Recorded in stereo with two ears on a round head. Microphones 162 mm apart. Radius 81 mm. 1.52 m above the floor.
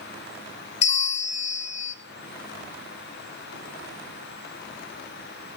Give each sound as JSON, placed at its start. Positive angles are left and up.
{"t": 0.8, "sound": "a bell", "side_deg": 35, "distance_m": 1.0}